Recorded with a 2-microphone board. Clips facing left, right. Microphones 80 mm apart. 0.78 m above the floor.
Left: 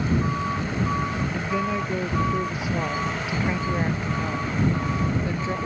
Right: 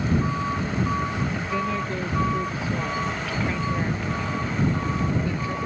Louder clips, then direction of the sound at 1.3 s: Left 1 dB; 10° left (ahead or behind).